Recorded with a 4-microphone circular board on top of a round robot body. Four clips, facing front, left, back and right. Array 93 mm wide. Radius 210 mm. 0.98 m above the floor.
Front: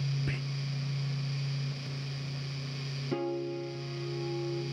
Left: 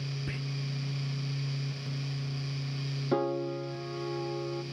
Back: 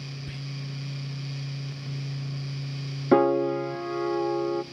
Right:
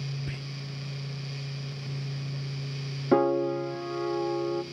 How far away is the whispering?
About 0.7 m.